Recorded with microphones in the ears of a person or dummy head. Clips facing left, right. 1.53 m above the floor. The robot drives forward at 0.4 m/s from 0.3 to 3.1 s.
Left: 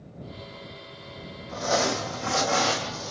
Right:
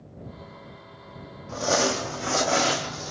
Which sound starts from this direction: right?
Crumpling, at 1.5 s.